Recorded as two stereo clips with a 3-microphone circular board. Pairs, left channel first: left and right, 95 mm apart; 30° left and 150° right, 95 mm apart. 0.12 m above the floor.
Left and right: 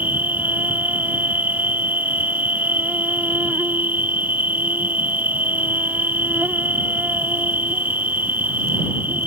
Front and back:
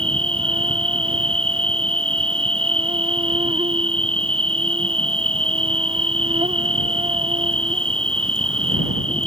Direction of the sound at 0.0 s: 160° right.